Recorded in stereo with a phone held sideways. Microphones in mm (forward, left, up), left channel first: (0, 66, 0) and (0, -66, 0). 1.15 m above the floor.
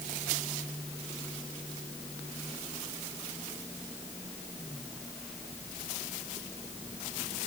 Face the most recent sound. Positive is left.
No sound to turn to.